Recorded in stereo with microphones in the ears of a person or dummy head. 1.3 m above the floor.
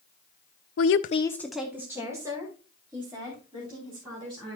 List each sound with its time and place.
0.8 s a woman speaking: 75° left (ahead or behind), 0.6 m; by 4.6 s 25° right (ahead or behind), 5.5 m